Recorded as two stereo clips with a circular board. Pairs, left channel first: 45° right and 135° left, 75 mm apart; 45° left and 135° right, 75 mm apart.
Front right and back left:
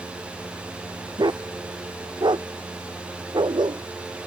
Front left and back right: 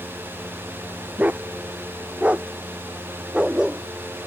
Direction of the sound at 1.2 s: 155° left.